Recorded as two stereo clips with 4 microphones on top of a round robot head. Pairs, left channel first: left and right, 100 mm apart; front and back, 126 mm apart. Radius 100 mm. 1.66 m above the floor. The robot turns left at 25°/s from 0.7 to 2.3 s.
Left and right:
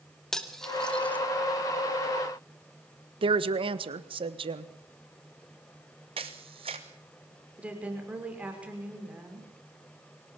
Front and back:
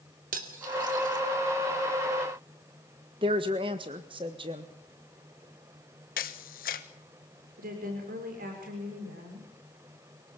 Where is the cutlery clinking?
175° left, 2 m; by 1.2 s 160° left, 2 m.